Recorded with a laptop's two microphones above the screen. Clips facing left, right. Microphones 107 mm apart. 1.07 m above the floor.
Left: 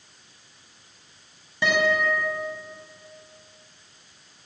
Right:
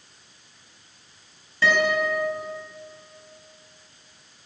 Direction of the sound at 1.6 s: 15° left (ahead or behind).